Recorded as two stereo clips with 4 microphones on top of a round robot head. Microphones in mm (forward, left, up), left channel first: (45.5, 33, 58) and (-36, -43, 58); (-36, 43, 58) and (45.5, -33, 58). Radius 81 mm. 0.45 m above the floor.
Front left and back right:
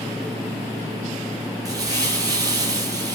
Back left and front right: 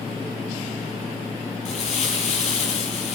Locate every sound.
1.6 s crumpling: 165° left, 7.5 m